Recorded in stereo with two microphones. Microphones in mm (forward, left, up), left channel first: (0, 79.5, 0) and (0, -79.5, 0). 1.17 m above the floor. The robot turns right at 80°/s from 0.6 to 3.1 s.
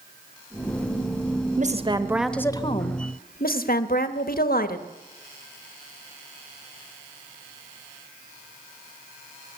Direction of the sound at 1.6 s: 55° right.